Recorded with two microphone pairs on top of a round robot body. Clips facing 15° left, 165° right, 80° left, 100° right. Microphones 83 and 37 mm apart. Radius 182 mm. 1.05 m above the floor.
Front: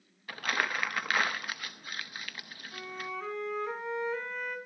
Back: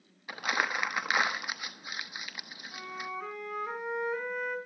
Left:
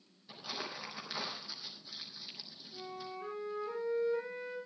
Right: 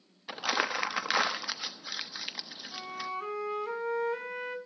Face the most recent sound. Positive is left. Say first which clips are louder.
# even, right 7 dB
turn(degrees=-85)